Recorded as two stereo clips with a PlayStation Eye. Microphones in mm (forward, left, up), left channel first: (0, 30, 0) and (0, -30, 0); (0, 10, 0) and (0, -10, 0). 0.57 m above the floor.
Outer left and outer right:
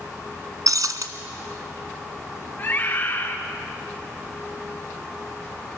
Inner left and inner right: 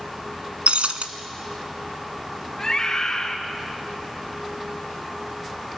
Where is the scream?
35° left (ahead or behind), 1.5 m.